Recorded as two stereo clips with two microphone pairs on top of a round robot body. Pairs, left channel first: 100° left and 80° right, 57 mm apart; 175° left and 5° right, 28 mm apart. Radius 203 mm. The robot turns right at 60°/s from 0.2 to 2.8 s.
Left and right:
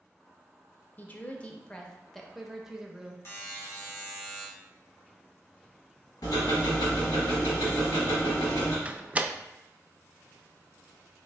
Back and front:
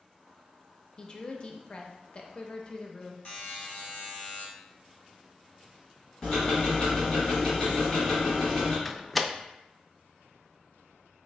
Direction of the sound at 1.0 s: 125° left.